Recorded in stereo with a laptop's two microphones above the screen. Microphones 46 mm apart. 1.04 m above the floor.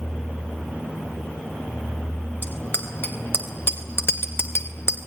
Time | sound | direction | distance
2.4 | a bicycle bell | 55° left (ahead or behind) | 4 m